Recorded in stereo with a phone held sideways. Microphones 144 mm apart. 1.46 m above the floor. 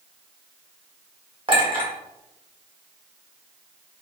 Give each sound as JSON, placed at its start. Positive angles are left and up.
{"t": 1.5, "sound": "a clink", "side_deg": -40, "distance_m": 1.0}